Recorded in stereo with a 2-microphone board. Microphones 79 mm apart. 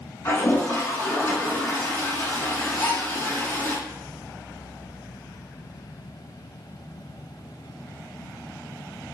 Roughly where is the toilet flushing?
Left.